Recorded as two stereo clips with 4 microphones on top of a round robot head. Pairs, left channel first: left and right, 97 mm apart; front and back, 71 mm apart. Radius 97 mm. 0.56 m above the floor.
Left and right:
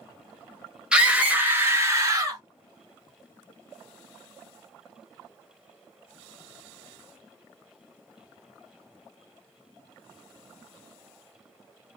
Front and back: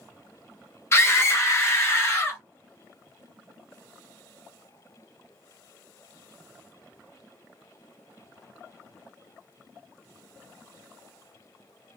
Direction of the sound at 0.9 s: 15° right.